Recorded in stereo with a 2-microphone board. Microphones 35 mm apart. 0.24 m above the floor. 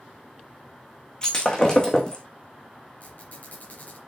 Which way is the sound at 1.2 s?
20° left (ahead or behind).